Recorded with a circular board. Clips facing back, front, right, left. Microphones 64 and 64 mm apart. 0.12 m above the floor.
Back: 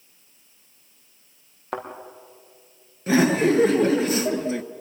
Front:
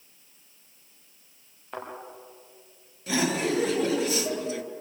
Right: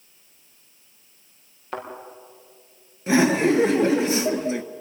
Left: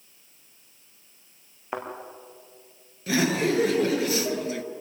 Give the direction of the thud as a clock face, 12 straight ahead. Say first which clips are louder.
Back 6 dB, even; 7 o'clock.